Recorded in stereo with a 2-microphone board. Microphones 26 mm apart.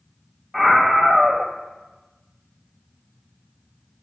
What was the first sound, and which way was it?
A scream, 5° left (ahead or behind).